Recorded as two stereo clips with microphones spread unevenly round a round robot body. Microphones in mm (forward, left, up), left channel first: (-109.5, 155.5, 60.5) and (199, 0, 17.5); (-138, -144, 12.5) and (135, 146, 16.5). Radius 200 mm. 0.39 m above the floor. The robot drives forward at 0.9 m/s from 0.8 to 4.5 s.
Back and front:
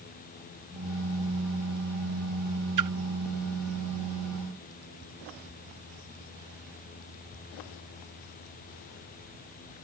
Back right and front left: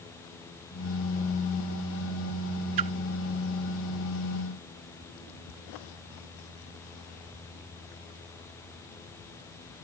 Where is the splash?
5° left.